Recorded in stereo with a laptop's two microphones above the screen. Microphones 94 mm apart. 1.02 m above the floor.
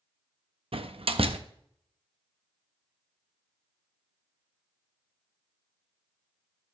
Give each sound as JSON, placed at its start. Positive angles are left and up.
{"t": 0.7, "sound": "a door slam", "side_deg": -75, "distance_m": 0.6}